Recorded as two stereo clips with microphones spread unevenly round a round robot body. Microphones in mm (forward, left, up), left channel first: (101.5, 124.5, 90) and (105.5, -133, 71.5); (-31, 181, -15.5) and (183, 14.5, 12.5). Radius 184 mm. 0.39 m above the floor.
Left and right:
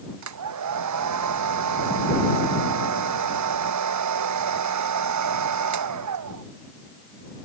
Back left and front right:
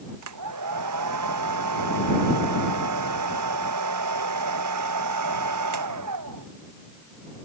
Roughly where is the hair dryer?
Right.